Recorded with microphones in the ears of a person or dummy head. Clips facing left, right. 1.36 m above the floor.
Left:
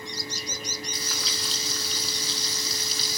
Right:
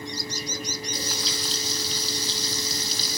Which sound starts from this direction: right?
Frying, at 0.9 s.